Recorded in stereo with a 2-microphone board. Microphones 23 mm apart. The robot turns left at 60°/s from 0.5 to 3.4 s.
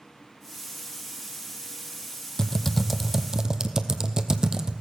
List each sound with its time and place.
2.4 s typing on a keyboard: 25° left (ahead or behind), 0.8 m; by 4.8 s 35° right (ahead or behind), 0.8 m